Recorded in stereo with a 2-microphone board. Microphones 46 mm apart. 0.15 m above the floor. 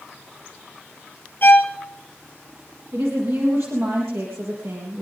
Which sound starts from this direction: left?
A violin, at 1.4 s.